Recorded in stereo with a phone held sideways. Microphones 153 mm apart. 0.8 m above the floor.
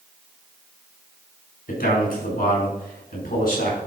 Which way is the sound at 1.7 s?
80° left.